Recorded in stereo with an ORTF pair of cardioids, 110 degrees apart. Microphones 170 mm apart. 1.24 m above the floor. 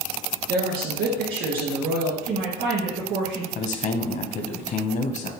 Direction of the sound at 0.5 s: 70° right.